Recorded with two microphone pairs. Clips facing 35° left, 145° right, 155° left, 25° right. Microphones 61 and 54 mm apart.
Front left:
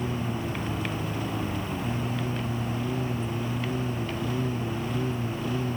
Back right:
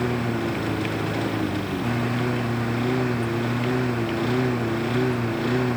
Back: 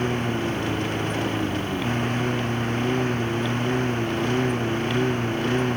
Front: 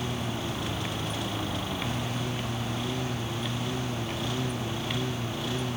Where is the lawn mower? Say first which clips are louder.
Back right 6 dB, back 8 dB; 165° right.